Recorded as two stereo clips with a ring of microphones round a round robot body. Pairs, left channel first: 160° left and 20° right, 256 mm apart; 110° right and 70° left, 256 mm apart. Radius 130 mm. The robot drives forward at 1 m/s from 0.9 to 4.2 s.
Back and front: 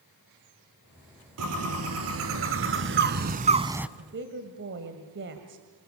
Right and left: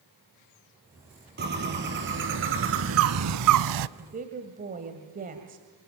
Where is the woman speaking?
10° left, 2.5 m; by 5.7 s 15° left, 2 m.